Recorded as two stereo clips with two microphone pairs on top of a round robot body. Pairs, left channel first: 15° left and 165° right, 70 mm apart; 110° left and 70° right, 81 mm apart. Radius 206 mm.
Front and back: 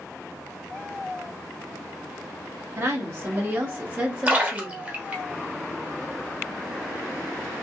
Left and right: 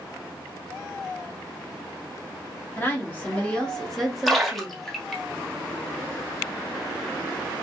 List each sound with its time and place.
2.8 s a woman speaking: 165° left, 1.4 m; by 4.9 s 90° right, 1.2 m
4.3 s a splash: 145° right, 1.4 m